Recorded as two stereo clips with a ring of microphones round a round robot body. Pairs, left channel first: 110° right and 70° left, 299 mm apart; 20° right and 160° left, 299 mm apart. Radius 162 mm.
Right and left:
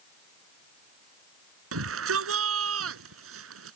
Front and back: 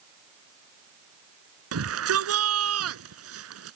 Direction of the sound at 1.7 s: 115° left.